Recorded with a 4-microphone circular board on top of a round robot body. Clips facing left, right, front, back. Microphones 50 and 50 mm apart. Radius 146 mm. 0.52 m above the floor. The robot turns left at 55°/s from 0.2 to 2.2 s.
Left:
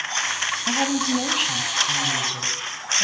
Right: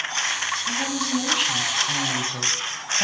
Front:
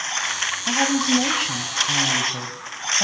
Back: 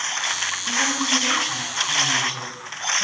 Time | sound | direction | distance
0.7 | a woman speaking | 55° left | 5.5 m